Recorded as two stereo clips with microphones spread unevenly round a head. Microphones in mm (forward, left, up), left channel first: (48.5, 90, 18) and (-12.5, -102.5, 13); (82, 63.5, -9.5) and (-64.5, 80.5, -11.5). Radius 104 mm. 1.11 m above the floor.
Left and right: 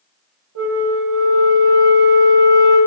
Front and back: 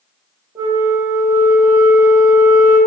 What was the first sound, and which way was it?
A flute, 110° right.